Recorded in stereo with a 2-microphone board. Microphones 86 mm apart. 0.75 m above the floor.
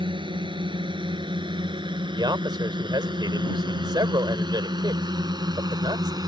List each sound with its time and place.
0.0 s a drone: 75° right (ahead or behind); by 6.3 s 50° right (ahead or behind)
2.2 s a man speaking: 60° right (ahead or behind)